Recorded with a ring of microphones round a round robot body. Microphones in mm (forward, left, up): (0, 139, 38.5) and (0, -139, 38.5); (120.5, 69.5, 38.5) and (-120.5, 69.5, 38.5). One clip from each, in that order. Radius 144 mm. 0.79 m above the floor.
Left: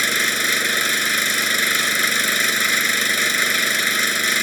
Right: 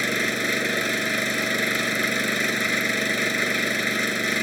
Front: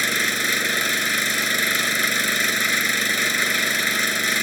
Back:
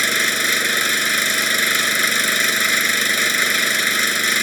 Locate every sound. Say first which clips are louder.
0.0 s an engine running: left 5 dB, back 3 dB; 125° left